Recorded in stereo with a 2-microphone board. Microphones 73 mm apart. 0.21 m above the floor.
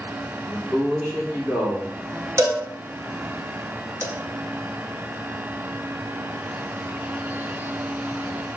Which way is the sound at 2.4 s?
45° right (ahead or behind).